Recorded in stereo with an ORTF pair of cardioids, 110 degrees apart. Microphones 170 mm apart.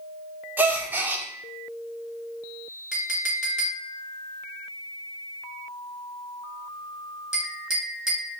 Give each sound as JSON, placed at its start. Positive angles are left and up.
{"t": 0.6, "sound": "a gasp", "azimuth_deg": -10, "distance_m": 0.7}
{"t": 2.9, "sound": "a clink", "azimuth_deg": 0, "distance_m": 2.0}